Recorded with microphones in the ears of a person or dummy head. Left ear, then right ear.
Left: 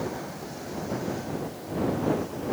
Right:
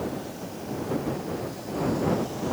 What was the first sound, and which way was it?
Only background noise.